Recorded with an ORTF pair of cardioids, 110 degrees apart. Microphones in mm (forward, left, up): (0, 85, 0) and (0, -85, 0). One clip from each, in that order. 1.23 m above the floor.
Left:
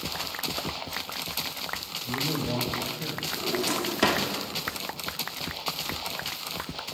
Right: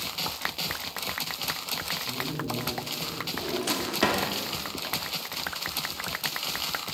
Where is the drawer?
Straight ahead, 1.6 m.